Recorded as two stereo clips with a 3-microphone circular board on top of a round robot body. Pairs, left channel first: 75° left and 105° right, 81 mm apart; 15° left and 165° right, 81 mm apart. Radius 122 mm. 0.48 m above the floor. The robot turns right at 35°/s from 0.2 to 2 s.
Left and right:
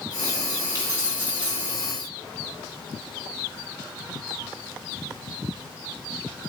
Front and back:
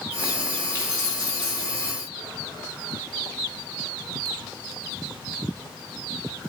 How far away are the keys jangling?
About 3 m.